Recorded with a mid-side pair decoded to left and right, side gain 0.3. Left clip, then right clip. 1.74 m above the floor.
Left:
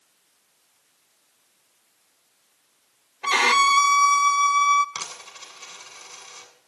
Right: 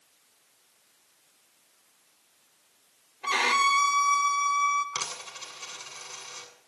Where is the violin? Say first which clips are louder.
Left 5 dB; 65° left, 0.7 m.